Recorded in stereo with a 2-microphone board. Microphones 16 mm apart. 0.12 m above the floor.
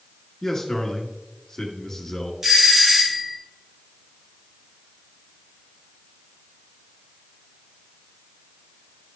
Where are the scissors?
I don't hear scissors.